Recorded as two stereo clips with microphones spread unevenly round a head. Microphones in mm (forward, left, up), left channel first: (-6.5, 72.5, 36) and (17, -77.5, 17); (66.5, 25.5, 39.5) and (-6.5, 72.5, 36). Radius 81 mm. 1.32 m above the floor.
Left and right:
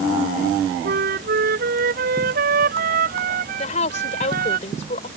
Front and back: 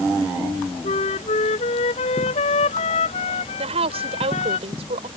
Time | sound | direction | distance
0.8 | a flute | 50° right | ?
3.6 | a woman speaking | 145° left | ?